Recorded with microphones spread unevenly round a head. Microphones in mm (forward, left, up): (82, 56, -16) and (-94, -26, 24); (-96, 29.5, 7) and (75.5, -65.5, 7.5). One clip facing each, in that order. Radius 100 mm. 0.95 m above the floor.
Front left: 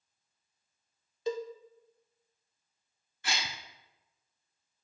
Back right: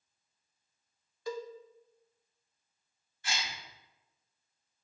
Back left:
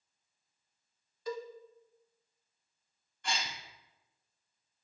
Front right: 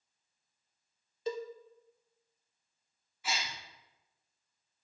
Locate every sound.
1.3 s a cowbell: 15° left, 0.6 m
3.2 s a gasp: 55° left, 0.9 m